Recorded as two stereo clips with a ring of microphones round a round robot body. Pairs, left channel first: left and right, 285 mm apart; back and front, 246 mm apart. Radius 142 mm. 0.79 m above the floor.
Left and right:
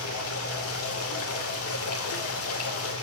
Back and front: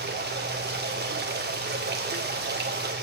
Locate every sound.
0.0 s running water: 50° left, 2.5 m